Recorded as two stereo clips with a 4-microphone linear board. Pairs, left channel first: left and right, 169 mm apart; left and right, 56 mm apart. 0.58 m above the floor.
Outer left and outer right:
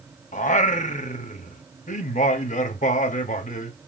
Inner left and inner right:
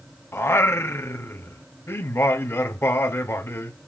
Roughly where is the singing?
Left.